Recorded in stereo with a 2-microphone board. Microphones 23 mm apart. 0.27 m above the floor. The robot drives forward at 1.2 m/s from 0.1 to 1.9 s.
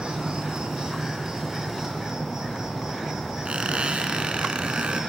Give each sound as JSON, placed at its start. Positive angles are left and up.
{"t": 0.0, "sound": "an insect", "side_deg": -45, "distance_m": 2.5}
{"t": 3.5, "sound": "a squeak", "side_deg": -45, "distance_m": 2.0}